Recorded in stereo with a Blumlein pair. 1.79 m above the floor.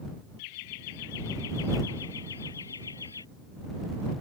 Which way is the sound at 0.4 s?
45° left.